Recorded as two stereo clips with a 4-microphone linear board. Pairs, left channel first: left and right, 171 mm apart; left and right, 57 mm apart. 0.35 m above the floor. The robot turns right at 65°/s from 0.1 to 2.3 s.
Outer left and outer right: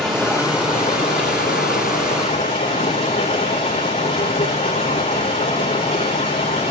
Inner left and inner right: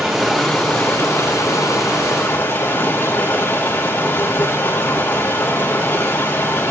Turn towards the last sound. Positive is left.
turn(degrees=145)